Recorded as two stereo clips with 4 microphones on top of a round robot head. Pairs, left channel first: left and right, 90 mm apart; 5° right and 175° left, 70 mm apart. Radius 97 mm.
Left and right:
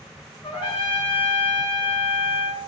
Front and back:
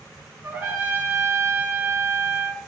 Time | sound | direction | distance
0.4 | a trumpet | 115° left | 2 m